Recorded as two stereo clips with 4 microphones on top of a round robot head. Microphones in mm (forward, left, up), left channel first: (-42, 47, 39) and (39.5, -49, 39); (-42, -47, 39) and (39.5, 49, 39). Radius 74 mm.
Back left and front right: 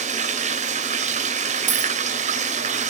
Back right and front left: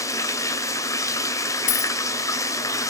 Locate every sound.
0.0 s running water: 65° right, 1.6 m
1.7 s a dropped coin: 110° right, 1.1 m